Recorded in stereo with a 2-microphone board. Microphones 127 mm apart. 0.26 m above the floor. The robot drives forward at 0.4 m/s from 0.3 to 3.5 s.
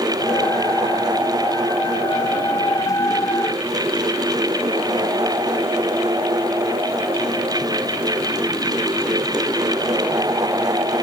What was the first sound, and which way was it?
Only background noise.